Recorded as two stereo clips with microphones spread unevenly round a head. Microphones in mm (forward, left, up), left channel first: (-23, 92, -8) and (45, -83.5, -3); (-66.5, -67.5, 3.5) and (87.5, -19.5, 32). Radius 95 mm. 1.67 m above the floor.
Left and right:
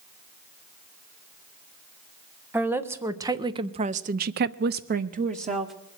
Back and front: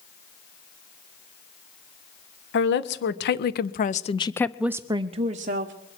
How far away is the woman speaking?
About 1.2 m.